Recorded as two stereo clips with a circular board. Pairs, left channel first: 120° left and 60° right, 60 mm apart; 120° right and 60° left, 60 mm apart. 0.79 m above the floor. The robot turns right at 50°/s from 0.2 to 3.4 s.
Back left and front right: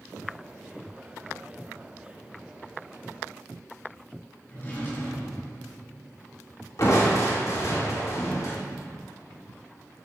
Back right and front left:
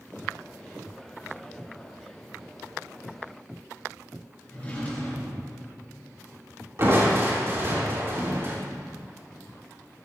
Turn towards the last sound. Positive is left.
turn(degrees=100)